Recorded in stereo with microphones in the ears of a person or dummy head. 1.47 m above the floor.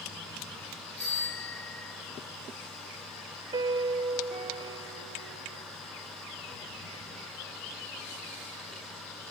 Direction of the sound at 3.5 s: 30° right (ahead or behind).